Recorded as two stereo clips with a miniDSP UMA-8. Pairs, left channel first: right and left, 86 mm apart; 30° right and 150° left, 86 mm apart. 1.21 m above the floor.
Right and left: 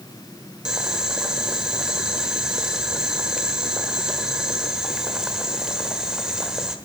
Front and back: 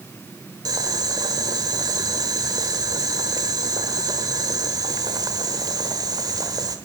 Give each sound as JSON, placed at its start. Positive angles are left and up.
{"t": 0.7, "sound": "boiling", "azimuth_deg": 170, "distance_m": 1.2}